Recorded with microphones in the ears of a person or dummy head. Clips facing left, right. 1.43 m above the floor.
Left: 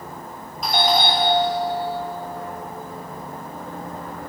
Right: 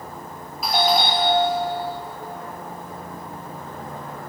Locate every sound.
0.6 s a doorbell: centre (ahead or behind), 2.5 m